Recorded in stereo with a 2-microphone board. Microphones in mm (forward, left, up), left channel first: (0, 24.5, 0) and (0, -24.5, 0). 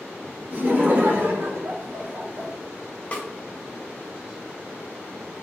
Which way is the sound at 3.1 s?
25° left (ahead or behind).